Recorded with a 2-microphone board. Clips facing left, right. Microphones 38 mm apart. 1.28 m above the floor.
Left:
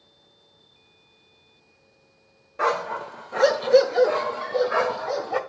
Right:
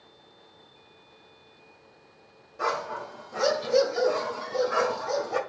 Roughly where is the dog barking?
Left.